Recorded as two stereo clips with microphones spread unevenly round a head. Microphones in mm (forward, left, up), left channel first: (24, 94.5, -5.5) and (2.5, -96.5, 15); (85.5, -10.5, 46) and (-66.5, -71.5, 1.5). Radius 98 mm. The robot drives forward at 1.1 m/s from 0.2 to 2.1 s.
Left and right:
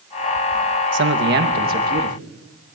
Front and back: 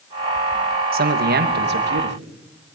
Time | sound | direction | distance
0.9 | a man speaking | 130° right | 2 m